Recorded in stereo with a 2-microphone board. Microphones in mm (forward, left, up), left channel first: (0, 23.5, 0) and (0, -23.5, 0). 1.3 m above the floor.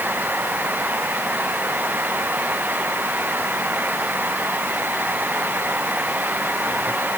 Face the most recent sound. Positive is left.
No sound to turn to.